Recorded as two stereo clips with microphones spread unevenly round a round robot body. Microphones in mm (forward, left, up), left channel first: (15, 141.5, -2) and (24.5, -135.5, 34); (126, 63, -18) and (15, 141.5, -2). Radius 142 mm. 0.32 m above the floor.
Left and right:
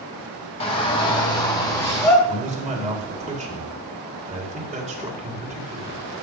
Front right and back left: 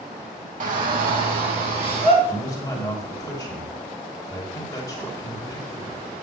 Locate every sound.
0.6 s a shout: 155° left, 1.5 m; by 2.1 s 170° left, 2.5 m
2.2 s a man speaking: 35° right, 1.6 m